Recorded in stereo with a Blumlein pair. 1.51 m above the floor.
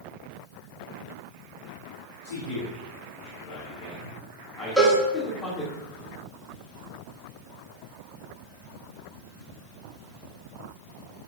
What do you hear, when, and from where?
2.2 s a man speaking: 65° left, 2.5 m; by 5.8 s 15° left, 2 m
4.8 s a cowbell: straight ahead, 2 m